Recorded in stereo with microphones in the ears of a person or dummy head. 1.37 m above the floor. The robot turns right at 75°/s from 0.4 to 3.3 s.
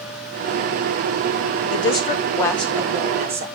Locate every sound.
1.7 s a woman speaking: 110° left, 1.0 m; by 3.5 s 135° right, 1.0 m